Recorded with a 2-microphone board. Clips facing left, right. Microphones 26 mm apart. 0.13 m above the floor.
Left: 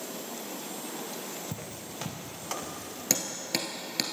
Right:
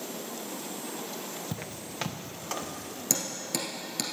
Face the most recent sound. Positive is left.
turn(degrees=30)  # may be behind; listen again after turning